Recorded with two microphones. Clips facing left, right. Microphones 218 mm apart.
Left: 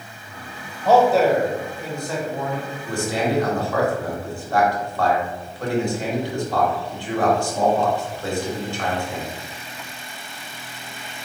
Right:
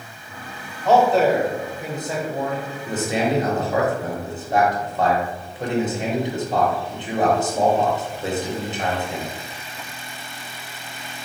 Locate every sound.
0.8 s a man speaking: 10° left (ahead or behind), 1.1 m; by 2.7 s 40° right (ahead or behind), 1.2 m
2.9 s a man speaking: 20° right (ahead or behind), 1.0 m